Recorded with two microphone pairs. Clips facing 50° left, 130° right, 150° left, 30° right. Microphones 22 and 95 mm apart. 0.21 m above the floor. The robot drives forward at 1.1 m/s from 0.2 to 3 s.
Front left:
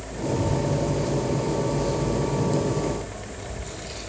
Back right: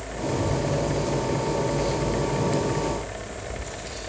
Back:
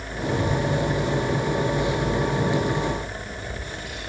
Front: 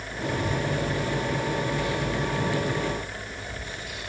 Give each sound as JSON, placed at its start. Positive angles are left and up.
{"t": 0.3, "sound": "a child speaking", "azimuth_deg": 95, "distance_m": 2.5}